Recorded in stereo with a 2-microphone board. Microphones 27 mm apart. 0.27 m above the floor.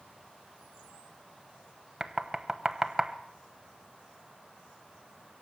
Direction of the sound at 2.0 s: 15° right (ahead or behind).